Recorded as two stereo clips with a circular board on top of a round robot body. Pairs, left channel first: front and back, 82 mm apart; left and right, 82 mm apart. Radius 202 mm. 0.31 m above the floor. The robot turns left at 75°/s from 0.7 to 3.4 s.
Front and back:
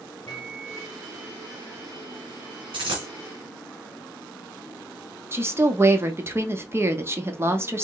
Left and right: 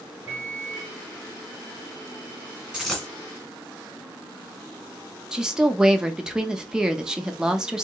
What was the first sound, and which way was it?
A microwave, 25° right.